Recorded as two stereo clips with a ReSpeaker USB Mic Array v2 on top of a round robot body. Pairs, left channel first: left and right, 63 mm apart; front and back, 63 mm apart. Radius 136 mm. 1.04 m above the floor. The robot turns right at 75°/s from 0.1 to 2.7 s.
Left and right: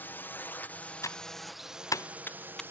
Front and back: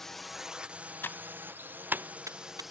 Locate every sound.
0.0 s a drone: 80° left; by 2.7 s 95° right
1.0 s typing on a keyboard: 55° left; by 2.6 s 175° left